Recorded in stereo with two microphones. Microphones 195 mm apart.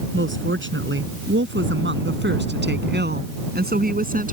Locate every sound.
0.1 s a woman speaking: 80° right; by 4.3 s 45° right (ahead or behind)